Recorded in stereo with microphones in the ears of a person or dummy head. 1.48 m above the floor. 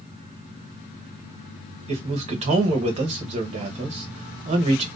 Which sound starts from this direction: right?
A man speaking, at 1.9 s.